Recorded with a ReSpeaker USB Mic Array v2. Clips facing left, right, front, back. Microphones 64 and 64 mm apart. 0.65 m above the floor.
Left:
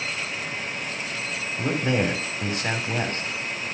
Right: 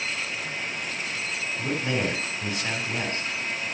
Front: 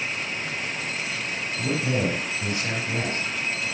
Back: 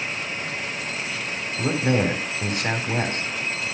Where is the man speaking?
135° left, 4 m.